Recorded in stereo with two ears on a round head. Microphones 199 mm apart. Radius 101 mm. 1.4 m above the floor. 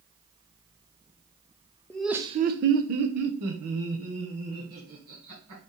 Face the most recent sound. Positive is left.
turn(degrees=-75)  # may be behind; listen again after turning